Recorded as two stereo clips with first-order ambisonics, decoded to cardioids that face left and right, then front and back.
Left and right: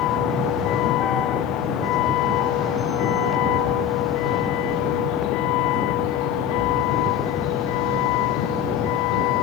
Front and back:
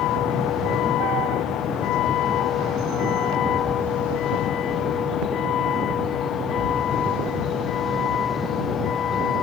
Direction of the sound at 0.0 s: 45° left.